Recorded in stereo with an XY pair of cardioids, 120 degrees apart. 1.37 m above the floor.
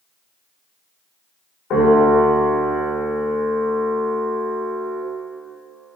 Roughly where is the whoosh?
No whoosh in this recording.